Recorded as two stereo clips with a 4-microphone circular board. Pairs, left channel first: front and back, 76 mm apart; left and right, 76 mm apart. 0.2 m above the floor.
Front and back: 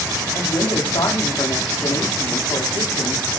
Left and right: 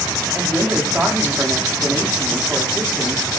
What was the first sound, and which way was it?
A woman speaking, 20° right.